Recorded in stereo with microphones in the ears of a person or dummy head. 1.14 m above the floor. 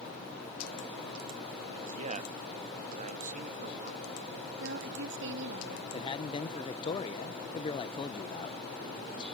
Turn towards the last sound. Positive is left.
turn(degrees=30)  # may be behind; listen again after turning